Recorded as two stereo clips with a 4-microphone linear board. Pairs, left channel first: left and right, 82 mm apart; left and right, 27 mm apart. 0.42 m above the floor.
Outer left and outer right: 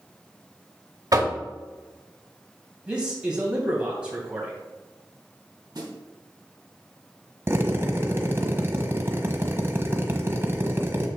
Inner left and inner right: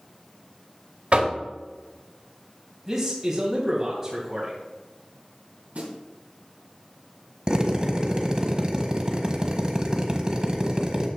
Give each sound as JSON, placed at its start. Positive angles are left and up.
{"t": 1.1, "sound": "knocking", "side_deg": -50, "distance_m": 1.4}
{"t": 2.9, "sound": "a man speaking", "side_deg": -15, "distance_m": 3.0}
{"t": 5.8, "sound": "a snare drum", "side_deg": -65, "distance_m": 2.5}
{"t": 7.5, "sound": "a drill", "side_deg": -30, "distance_m": 1.2}